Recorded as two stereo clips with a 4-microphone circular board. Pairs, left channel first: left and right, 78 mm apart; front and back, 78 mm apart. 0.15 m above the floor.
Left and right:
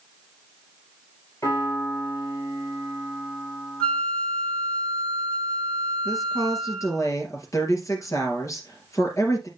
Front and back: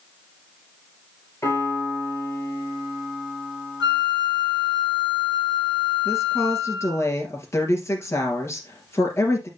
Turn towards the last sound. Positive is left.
turn(degrees=50)